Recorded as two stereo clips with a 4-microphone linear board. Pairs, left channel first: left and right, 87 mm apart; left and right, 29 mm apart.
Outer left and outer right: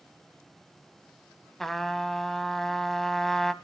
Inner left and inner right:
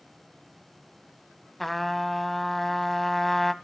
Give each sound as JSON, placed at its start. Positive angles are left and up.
{"t": 1.6, "sound": "a trumpet", "side_deg": 5, "distance_m": 0.6}